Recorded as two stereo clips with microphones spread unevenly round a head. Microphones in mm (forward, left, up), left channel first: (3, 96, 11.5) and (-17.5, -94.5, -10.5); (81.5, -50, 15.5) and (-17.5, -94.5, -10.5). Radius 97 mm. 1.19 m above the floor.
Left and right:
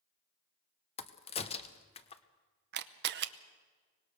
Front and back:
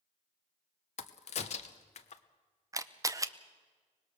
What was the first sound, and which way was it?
A crack, 25° left.